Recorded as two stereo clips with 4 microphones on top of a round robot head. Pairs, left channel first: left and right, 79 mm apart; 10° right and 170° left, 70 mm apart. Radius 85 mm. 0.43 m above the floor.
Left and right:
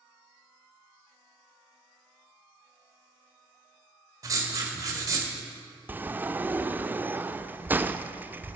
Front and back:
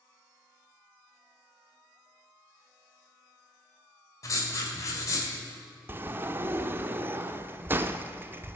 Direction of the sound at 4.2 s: 50° right.